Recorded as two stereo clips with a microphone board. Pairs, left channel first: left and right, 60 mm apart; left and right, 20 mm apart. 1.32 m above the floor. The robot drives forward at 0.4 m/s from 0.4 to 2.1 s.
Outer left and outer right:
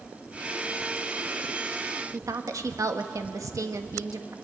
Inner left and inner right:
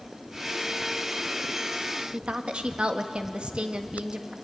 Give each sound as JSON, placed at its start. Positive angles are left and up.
{"t": 2.1, "sound": "a woman speaking", "side_deg": -65, "distance_m": 1.5}